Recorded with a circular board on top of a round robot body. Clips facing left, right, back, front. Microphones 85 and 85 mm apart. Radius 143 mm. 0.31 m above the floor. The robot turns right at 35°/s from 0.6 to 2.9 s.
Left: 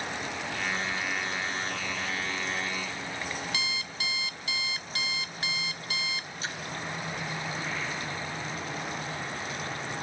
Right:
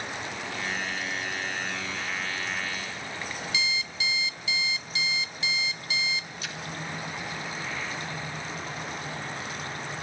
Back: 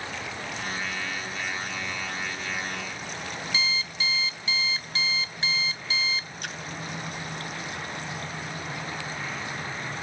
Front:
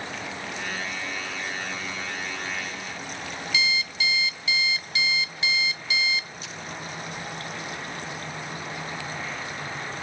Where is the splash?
150° left, 3 m.